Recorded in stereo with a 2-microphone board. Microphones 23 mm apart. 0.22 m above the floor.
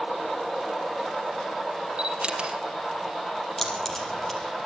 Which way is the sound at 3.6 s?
15° left (ahead or behind).